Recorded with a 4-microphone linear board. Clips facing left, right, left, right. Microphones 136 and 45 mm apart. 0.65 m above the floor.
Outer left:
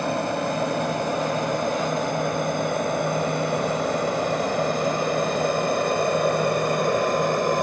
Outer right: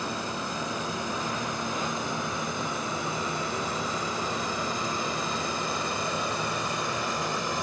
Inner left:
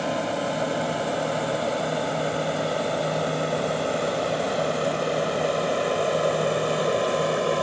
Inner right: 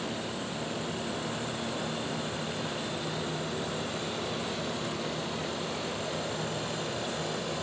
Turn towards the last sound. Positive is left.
turn(degrees=55)  # may be behind; listen again after turning